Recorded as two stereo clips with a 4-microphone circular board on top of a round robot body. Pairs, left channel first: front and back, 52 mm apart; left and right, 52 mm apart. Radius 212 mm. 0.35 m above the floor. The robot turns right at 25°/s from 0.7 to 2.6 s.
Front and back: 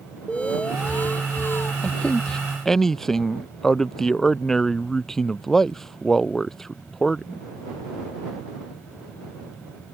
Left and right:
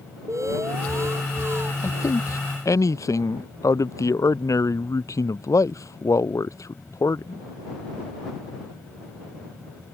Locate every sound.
0.3 s an alarm: 70° right; by 1.7 s 45° right
1.8 s a man speaking: 60° left; by 7.4 s 80° left